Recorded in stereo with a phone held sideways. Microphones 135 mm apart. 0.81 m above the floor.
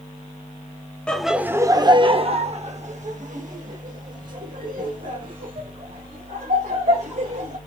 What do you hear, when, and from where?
1.1 s laughter: 5° left (ahead or behind), 0.6 m; by 7.6 s 80° right, 3.5 m